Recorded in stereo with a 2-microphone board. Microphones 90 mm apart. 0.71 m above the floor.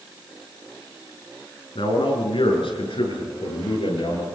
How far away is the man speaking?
About 7 m.